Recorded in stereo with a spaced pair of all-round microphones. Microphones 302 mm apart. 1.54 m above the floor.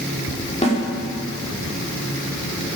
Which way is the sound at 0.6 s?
20° left (ahead or behind).